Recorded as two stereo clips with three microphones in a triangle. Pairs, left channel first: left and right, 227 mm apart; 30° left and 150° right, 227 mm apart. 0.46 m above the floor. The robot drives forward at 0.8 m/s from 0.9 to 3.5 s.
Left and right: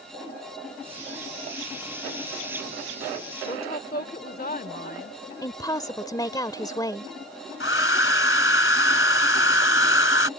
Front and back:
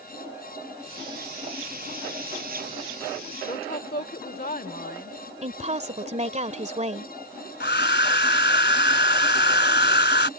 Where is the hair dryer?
65° left.